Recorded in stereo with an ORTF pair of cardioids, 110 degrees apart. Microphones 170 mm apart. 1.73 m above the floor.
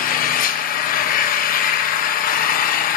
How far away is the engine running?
About 1.0 m.